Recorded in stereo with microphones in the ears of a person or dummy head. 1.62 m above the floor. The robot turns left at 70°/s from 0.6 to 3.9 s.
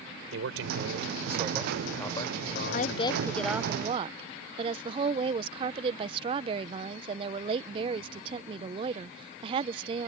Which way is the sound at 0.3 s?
95° right.